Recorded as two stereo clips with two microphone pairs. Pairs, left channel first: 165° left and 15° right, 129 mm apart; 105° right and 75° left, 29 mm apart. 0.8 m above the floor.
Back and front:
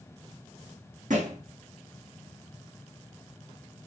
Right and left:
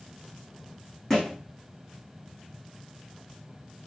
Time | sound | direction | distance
1.1 | a thud | 30° right | 6 m